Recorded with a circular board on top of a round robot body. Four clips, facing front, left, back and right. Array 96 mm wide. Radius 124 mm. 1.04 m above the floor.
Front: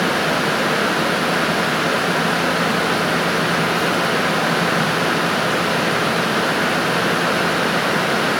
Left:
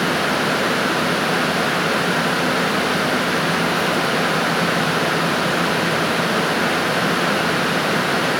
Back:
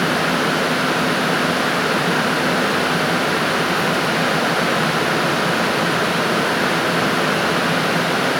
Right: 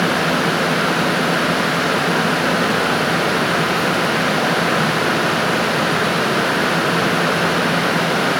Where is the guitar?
I don't hear a guitar.